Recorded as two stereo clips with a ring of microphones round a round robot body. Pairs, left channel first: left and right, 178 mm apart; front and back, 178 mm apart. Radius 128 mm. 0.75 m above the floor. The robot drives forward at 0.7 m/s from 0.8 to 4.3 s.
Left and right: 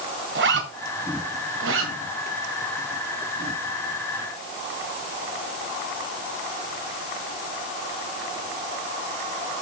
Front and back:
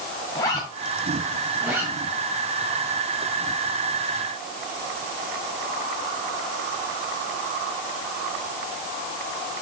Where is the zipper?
75° right, 1.9 m; by 1.9 s 100° right, 1.9 m.